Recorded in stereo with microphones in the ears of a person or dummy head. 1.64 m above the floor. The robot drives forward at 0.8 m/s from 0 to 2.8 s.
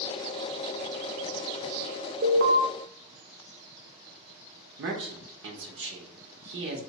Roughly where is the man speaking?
Right.